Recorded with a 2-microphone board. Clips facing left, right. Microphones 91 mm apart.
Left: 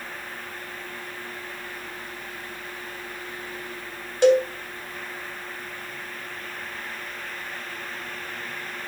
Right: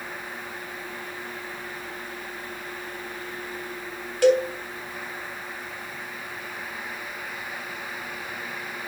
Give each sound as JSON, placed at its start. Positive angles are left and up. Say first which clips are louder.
{"t": 4.2, "sound": "a cowbell", "louder": "left 1 dB", "side_deg": 20, "distance_m": 3.0}